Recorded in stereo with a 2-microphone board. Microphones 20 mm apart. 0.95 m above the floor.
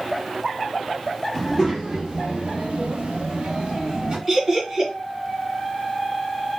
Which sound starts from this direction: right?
Laughter, at 4.3 s.